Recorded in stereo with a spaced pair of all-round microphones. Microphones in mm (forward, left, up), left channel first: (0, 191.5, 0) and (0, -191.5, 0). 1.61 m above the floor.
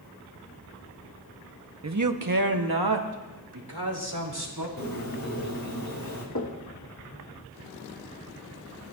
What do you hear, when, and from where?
1.8 s a man speaking: 40° right (ahead or behind), 0.7 m; by 4.7 s 80° right, 3 m
4.8 s a bird: 60° left (ahead or behind), 2.5 m
6.3 s knocking: 60° left (ahead or behind), 1.9 m